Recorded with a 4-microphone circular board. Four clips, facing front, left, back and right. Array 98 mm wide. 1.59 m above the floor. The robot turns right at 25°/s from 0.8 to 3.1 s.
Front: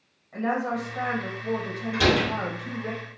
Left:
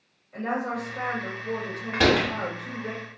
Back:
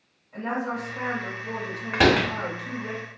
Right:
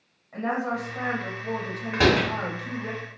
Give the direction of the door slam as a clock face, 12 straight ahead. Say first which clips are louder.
Even, back 3 dB; 6 o'clock.